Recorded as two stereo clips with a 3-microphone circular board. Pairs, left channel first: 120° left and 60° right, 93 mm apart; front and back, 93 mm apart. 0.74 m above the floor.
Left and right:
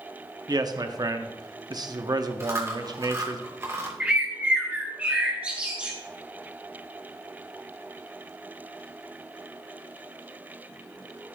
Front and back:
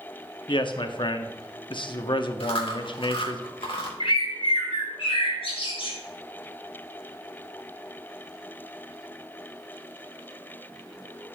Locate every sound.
0.5 s a man speaking: 20° right, 1.0 m
2.4 s chewing: straight ahead, 2 m
4.0 s a bird: 15° left, 2.5 m